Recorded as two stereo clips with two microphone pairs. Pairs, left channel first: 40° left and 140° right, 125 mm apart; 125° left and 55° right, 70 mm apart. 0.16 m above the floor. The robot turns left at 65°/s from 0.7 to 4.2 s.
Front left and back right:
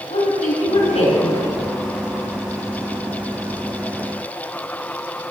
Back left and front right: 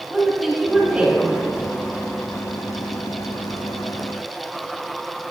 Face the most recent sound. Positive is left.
turn(degrees=170)